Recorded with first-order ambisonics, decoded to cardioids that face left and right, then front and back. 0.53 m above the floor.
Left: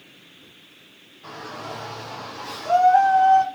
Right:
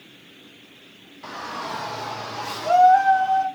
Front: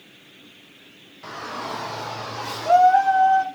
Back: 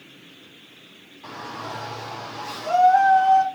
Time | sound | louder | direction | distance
1.2 | a shout | right 4 dB, front 3 dB | 45° right | 2.5 m